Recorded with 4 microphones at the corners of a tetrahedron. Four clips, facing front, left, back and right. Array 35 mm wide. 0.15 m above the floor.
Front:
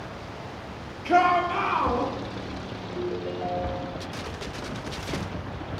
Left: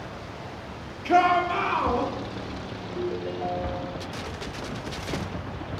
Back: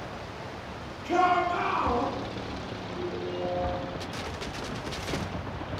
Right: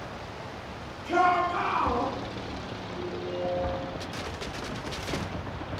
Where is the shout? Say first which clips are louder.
Left 3 dB, front 3 dB; 60° left, 3.5 m; by 2.1 s 75° left, 3.5 m.